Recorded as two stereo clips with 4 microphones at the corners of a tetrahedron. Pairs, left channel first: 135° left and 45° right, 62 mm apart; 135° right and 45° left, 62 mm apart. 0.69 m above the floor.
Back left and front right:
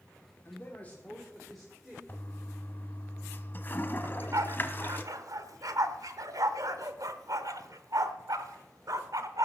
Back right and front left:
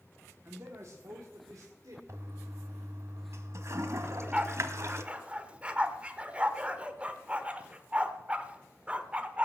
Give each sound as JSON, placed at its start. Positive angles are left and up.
{"t": 0.5, "sound": "a man speaking", "azimuth_deg": 90, "distance_m": 1.6}
{"t": 2.1, "sound": "a toilet flushing", "azimuth_deg": 80, "distance_m": 1.1}
{"t": 4.0, "sound": "a dog barking", "azimuth_deg": -25, "distance_m": 0.9}